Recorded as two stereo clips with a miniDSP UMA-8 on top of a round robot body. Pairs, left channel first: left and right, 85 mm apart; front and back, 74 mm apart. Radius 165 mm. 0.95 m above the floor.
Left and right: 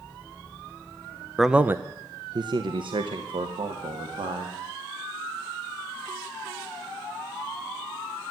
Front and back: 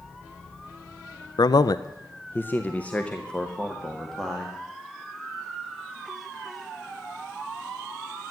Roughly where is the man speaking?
Ahead.